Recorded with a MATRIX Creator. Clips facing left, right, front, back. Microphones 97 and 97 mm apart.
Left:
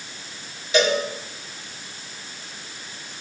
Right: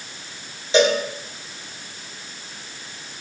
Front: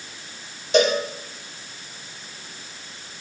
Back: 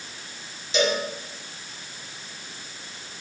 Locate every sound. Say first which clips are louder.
0.7 s a cowbell: right 3 dB, front 5 dB; 30° right, 2.5 m